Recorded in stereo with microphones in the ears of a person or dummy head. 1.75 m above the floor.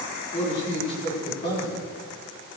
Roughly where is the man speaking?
Left.